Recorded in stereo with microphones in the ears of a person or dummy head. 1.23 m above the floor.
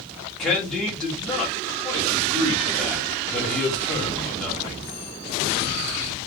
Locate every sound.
0.4 s a man speaking: 5° left (ahead or behind), 1.0 m